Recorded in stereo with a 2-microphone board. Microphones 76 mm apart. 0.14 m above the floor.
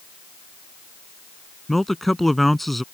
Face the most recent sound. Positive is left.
turn(degrees=0)  # may be behind; listen again after turning